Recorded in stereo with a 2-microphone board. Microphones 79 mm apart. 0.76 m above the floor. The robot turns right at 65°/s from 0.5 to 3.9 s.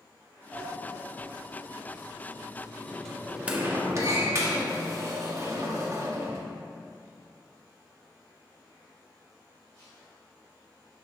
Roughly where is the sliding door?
Centre.